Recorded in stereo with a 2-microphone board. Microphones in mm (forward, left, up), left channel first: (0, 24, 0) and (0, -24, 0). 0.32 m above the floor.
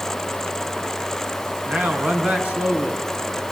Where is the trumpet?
No trumpet in this recording.